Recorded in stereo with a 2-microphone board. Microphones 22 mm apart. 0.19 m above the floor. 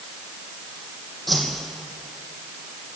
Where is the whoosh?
5° left (ahead or behind), 2.5 m.